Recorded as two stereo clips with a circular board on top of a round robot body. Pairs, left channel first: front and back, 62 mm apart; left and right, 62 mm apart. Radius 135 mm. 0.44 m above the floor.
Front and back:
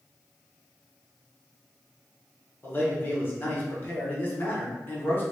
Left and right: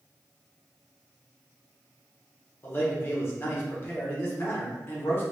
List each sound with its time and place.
2.6 s a man speaking: 50° left, 1.0 m